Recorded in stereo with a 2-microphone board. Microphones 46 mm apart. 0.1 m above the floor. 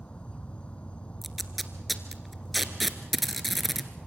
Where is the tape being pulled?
Centre (ahead or behind), 1.4 m.